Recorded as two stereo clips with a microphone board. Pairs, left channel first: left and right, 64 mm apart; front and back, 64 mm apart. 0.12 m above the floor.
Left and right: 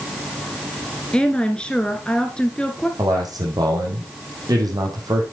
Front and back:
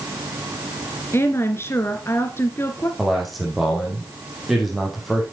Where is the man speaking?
90° right, 4 m.